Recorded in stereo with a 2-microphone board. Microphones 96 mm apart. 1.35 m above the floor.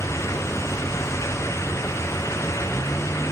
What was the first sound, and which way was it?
A vehicle, 10° left (ahead or behind).